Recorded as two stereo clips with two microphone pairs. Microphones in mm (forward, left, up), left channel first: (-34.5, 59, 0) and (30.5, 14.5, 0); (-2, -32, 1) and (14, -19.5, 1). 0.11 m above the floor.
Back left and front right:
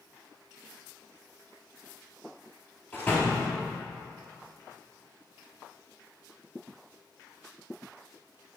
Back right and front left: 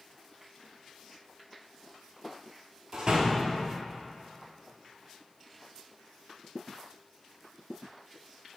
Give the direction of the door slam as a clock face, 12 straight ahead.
9 o'clock.